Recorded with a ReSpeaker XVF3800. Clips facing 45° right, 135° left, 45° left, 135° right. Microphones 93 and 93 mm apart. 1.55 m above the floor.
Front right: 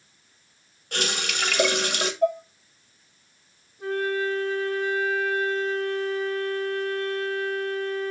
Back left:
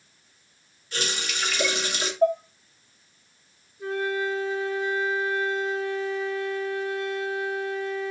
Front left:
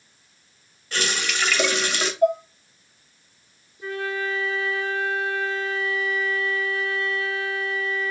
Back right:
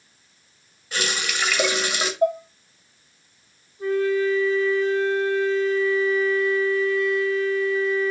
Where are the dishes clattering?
170° right, 1.7 m.